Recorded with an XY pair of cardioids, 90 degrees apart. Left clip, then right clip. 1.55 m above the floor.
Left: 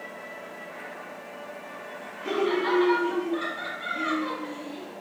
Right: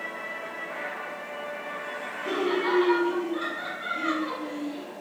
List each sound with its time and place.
2.2 s laughter: 15° left, 0.9 m